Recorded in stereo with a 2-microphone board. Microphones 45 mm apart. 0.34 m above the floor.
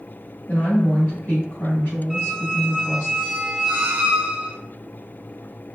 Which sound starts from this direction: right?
A squeak, at 2.1 s.